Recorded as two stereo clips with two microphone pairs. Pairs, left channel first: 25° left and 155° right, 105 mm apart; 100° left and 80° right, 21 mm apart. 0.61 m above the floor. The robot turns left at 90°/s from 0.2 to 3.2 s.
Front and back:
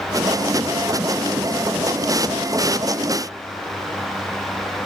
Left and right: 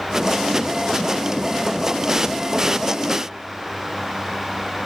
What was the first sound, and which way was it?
Only background noise.